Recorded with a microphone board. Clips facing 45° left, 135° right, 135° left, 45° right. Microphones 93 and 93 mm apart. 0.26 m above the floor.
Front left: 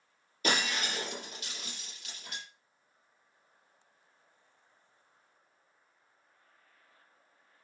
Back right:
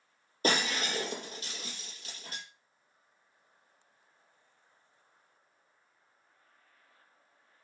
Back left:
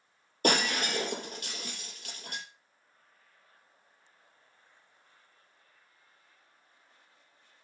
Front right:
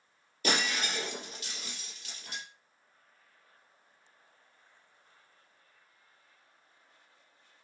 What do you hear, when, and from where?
0.4 s breaking glass: 170° left, 6.5 m